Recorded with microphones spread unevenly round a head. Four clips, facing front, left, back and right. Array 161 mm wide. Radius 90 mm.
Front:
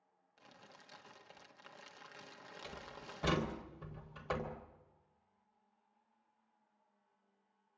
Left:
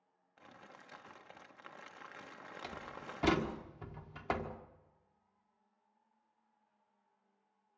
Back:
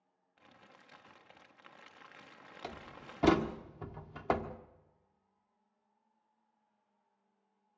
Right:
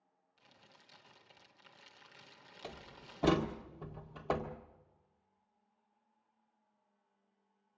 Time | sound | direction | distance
0.4 | crumpling | 80° left | 1.3 m
2.6 | a door slam | 165° right | 1.6 m